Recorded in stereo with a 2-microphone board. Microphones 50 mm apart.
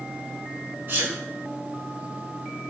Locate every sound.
0.9 s a sneeze: 60° right (ahead or behind), 3 m